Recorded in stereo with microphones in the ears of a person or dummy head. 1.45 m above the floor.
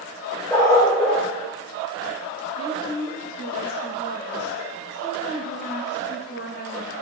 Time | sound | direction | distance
0.5 | a dog barking | 15° left (ahead or behind) | 2.5 m
2.6 | a woman speaking | 85° left | 2.5 m